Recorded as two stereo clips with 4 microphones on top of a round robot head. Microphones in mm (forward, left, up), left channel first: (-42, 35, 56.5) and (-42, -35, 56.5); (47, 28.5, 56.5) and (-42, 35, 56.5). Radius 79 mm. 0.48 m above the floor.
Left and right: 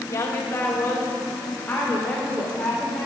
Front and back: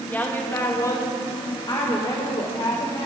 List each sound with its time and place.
0.1 s a woman speaking: 60° left, 1.4 m; by 3.1 s 10° left, 2 m